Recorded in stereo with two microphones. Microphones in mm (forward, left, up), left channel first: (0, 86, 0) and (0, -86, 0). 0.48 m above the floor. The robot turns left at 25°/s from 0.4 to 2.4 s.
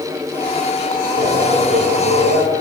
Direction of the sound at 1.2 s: 105° right.